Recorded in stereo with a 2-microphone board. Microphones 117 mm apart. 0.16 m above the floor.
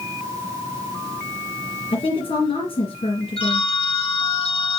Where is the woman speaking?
55° left (ahead or behind), 3 m.